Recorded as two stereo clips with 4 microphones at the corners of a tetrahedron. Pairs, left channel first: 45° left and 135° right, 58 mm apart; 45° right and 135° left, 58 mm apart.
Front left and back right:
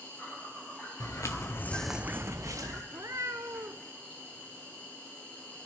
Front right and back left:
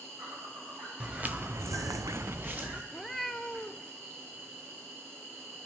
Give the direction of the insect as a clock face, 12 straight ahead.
8 o'clock.